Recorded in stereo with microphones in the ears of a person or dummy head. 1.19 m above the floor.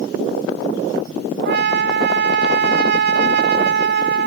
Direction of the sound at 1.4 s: 60° right (ahead or behind).